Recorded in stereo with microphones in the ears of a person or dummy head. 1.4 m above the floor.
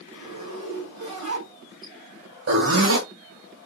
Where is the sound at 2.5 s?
65° right (ahead or behind), 2 m.